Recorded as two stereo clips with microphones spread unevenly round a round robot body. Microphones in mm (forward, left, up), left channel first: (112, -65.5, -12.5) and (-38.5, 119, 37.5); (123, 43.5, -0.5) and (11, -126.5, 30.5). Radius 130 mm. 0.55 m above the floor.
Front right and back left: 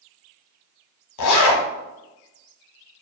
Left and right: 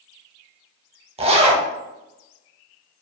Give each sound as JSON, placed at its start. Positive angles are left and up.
{"t": 1.2, "sound": "a zipper", "azimuth_deg": -70, "distance_m": 0.6}